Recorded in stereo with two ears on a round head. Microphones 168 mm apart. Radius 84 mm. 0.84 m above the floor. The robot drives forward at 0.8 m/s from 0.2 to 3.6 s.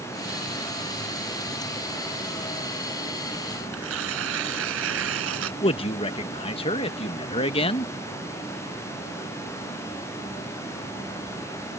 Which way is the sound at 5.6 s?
30° left (ahead or behind).